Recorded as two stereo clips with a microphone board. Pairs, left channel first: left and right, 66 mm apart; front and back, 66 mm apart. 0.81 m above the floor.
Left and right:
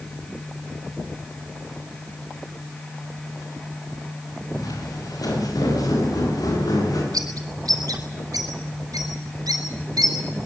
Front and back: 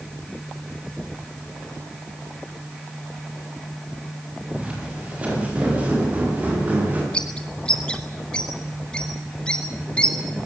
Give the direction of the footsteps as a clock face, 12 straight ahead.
8 o'clock.